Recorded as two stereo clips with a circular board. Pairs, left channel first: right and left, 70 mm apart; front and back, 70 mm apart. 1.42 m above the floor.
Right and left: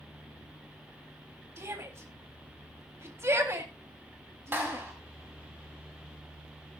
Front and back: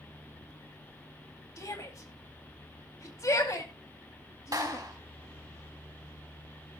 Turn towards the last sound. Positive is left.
turn(degrees=150)